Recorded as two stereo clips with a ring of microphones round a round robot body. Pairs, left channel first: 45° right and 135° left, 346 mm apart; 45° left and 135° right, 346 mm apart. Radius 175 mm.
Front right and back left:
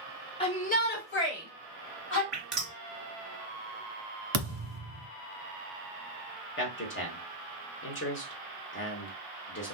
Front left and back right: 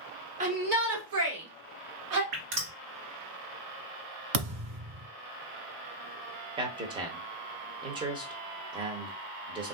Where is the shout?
100° right, 0.9 m; by 2.2 s 95° right, 1.9 m.